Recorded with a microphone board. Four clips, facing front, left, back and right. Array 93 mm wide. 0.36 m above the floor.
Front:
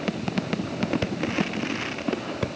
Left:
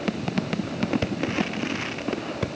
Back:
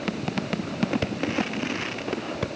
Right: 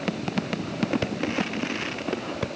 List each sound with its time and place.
Only background noise.